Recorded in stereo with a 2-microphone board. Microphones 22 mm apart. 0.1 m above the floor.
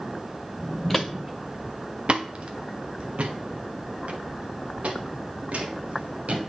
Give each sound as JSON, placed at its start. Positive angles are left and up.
{"t": 0.9, "sound": "footsteps", "side_deg": 5, "distance_m": 0.6}